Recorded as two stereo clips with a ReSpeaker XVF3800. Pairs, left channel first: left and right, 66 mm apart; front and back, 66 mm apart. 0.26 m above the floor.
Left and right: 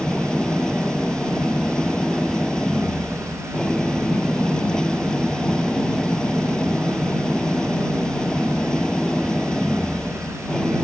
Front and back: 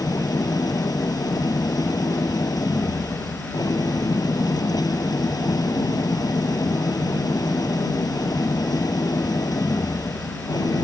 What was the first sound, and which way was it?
An engine running, 10° left.